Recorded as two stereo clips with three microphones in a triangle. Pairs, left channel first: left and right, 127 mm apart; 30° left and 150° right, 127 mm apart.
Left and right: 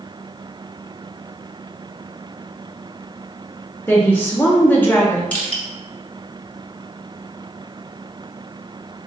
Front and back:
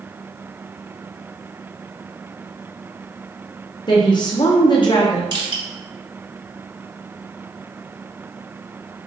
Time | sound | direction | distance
3.9 | a woman speaking | 25° left | 0.6 m
5.3 | crushing | 165° left | 1.5 m